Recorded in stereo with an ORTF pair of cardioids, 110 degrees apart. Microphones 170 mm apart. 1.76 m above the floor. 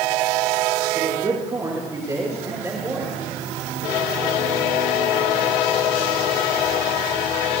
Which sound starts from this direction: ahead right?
A man speaking, at 0.9 s.